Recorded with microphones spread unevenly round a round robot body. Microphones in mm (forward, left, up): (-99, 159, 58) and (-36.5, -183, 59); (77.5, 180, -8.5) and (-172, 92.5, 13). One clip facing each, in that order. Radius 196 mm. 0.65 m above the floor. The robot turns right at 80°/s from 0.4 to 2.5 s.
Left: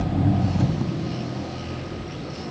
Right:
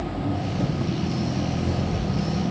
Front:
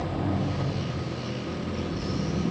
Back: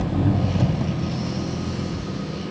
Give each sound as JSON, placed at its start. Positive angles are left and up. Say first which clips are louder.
{"t": 0.0, "sound": "an engine running", "louder": "left 4 dB, back 6 dB", "azimuth_deg": 150, "distance_m": 1.2}